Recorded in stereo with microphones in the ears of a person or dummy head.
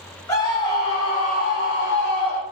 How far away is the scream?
About 1.1 m.